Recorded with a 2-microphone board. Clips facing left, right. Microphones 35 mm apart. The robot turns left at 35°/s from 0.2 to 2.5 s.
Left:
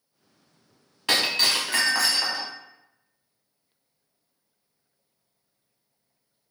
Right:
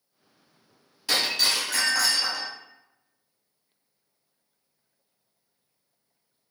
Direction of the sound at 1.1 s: 60° left.